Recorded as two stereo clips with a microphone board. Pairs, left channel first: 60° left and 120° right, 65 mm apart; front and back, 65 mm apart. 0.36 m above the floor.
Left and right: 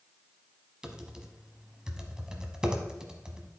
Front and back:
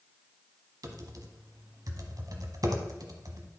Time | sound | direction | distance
0.8 | typing on a keyboard | 160° left | 1.0 m